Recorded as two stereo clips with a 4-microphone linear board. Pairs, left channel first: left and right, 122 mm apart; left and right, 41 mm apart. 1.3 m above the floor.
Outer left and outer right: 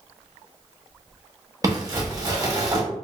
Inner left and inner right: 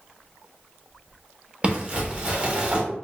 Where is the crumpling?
25° right (ahead or behind), 0.8 m.